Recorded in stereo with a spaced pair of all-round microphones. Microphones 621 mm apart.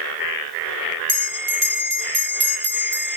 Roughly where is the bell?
Right.